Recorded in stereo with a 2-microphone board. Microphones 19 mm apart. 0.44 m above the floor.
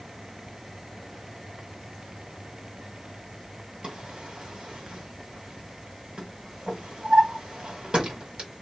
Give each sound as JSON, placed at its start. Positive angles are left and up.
{"t": 3.8, "sound": "a drawer", "side_deg": -50, "distance_m": 1.7}